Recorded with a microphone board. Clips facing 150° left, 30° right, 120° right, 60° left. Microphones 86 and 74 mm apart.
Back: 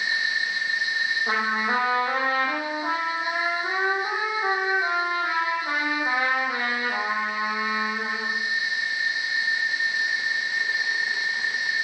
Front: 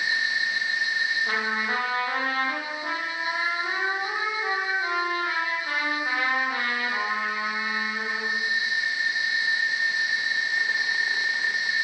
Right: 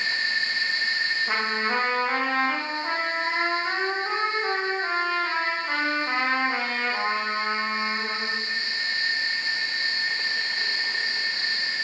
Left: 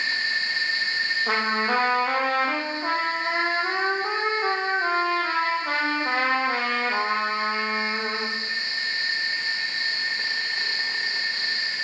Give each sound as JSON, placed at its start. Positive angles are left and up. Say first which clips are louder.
{"t": 1.3, "sound": "a trumpet", "louder": "back 3 dB, left 2 dB", "azimuth_deg": 85, "distance_m": 8.0}